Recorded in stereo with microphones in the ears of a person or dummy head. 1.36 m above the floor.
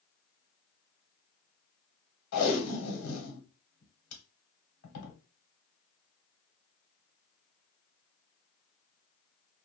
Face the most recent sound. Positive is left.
turn(degrees=85)